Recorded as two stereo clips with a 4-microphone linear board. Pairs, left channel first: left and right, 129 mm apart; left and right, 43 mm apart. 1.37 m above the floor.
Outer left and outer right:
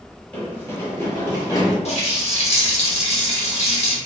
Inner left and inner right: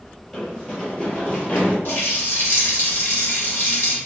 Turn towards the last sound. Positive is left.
turn(degrees=50)  # may be behind; listen again after turning